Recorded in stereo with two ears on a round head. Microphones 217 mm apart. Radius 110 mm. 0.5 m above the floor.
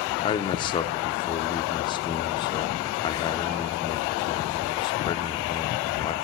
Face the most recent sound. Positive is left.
turn(degrees=20)  # may be behind; listen again after turning